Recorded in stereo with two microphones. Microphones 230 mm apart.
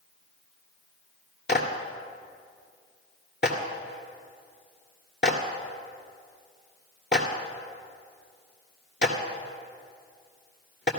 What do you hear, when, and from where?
1.5 s a clap: 50° left (ahead or behind), 1.7 m